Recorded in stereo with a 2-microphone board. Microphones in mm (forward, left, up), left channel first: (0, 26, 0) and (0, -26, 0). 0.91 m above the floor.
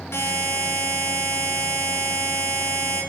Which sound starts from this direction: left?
A buzzer, at 0.1 s.